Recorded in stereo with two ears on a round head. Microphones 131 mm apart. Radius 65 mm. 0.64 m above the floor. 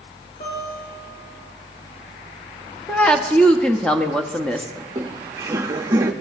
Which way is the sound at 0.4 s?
75° left (ahead or behind).